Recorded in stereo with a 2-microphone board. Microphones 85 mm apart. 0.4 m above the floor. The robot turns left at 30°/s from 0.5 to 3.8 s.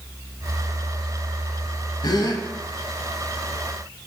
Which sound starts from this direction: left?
A gasp, at 2.0 s.